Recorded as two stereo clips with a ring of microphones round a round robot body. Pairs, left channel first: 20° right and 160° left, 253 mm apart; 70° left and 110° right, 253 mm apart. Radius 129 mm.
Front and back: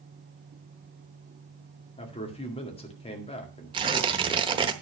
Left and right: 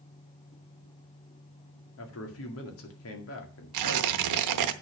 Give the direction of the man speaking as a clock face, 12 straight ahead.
11 o'clock.